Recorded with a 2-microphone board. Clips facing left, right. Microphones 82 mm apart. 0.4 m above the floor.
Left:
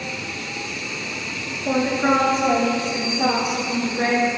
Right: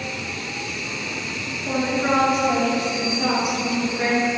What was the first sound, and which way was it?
A woman speaking, 35° left (ahead or behind).